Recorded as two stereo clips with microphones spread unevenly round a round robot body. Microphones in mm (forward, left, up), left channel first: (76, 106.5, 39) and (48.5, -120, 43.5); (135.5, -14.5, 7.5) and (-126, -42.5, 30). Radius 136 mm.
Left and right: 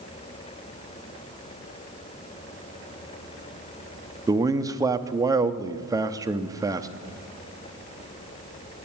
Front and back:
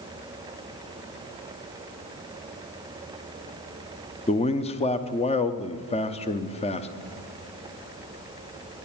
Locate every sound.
4.3 s a man speaking: 30° right, 0.6 m